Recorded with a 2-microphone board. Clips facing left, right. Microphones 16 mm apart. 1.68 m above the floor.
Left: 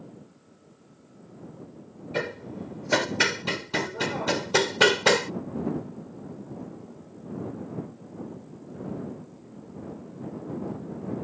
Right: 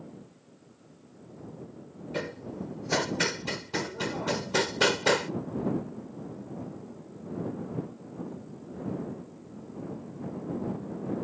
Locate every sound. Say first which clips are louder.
2.1 s hammering: left 4 dB; 30° left (ahead or behind)